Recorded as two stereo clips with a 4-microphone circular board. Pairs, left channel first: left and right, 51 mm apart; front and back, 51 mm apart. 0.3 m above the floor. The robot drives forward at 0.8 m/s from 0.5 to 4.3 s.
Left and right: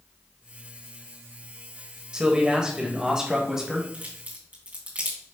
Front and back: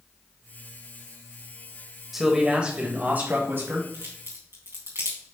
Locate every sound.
2.1 s a man speaking: 105° right, 1.3 m; by 3.8 s 165° right, 1.9 m
3.9 s a crack: 145° right, 3.5 m